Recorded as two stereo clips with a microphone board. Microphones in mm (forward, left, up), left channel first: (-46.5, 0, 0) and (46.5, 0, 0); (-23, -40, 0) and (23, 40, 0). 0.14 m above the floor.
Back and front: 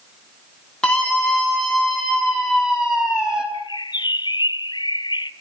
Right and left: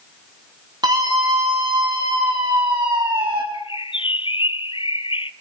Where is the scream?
100° left, 6 m; by 3.4 s 80° left, 6.5 m.